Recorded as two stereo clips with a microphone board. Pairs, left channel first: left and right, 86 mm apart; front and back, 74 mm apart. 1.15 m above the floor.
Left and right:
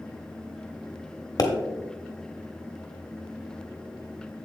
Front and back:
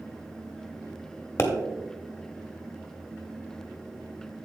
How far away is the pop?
About 1.3 m.